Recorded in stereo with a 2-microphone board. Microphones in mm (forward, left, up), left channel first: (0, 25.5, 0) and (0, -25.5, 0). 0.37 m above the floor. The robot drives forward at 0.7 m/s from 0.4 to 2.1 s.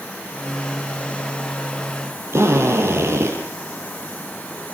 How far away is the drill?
About 8.5 m.